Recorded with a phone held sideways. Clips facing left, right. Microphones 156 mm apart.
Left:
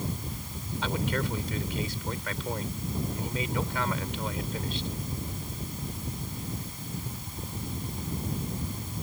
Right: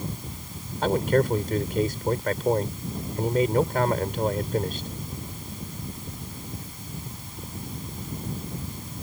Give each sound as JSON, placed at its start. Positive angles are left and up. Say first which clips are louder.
{"t": 0.8, "sound": "a man speaking", "louder": "right 9 dB", "side_deg": -50}